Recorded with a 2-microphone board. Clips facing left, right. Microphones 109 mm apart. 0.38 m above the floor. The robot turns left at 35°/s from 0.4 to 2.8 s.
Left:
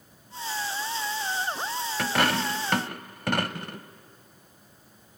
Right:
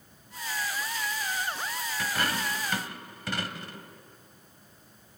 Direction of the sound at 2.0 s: 75° left (ahead or behind).